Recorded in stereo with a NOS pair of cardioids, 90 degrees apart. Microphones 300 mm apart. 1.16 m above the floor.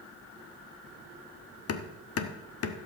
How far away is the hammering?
About 1.2 m.